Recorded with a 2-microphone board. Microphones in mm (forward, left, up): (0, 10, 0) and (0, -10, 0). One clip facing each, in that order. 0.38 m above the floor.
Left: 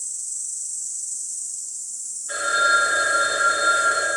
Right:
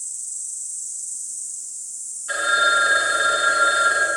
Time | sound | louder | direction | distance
0.0 | an insect | left 1 dB | 55° left (ahead or behind) | 1.6 m
2.3 | a phone ringing | right 1 dB | 40° right (ahead or behind) | 2 m